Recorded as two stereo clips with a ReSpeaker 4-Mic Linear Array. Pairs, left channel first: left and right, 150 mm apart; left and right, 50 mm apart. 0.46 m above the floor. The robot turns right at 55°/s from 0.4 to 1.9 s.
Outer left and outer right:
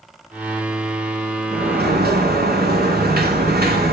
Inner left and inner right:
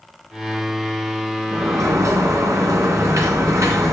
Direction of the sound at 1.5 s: 65° right (ahead or behind).